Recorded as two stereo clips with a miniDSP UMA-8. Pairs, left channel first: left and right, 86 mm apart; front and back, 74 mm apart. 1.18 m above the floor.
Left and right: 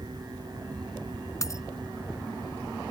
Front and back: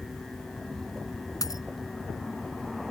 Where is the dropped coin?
40° left.